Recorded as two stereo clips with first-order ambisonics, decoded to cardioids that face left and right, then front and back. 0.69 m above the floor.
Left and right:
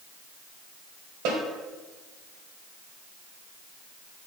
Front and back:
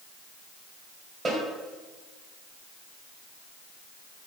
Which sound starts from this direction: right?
A snare drum, at 1.2 s.